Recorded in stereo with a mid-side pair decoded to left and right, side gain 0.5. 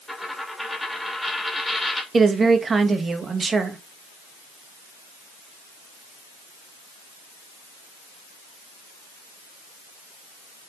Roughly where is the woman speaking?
Ahead right.